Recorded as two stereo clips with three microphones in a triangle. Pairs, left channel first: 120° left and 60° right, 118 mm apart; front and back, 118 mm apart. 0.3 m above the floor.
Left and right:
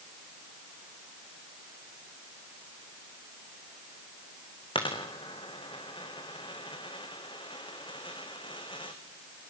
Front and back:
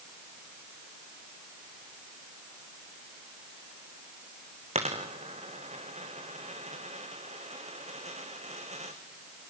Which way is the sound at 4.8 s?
165° left.